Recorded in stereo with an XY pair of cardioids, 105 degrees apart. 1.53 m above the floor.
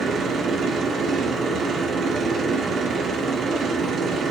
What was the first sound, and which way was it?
A machine running, 55° right.